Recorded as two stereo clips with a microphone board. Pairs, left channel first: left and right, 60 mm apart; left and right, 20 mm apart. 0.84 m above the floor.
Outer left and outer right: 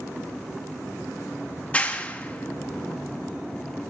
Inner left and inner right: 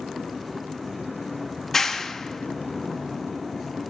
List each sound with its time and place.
1.6 s a clap: 20° left (ahead or behind), 0.9 m